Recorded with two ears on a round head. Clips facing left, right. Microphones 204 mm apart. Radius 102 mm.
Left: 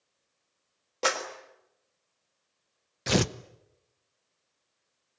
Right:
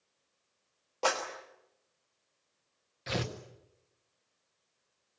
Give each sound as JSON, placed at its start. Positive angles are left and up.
{"t": 1.0, "sound": "a clap", "side_deg": 25, "distance_m": 3.5}
{"t": 3.1, "sound": "tearing paper", "side_deg": 60, "distance_m": 0.8}